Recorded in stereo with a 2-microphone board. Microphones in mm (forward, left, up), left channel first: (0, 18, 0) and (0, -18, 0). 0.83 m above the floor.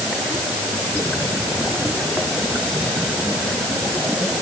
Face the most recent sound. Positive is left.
No sound to turn to.